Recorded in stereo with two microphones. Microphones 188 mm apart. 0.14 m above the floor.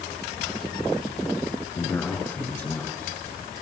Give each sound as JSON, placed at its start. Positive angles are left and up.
{"t": 1.8, "sound": "a man speaking", "side_deg": 10, "distance_m": 5.0}